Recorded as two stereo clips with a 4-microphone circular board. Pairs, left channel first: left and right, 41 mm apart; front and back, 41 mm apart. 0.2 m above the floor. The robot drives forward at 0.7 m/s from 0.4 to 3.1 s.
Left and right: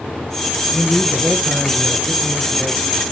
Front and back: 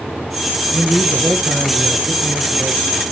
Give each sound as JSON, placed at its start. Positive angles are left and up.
{"t": 0.7, "sound": "a man speaking", "azimuth_deg": -175, "distance_m": 1.6}